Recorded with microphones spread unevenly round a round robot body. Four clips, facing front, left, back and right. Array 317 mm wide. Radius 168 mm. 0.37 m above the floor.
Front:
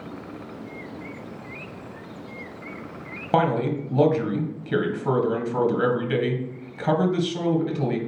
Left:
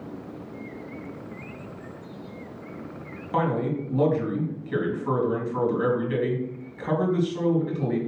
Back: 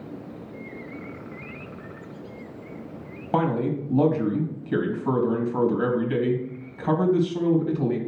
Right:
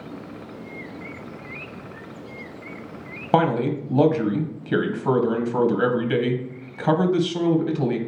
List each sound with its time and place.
3.3 s a man speaking: 55° right, 2.5 m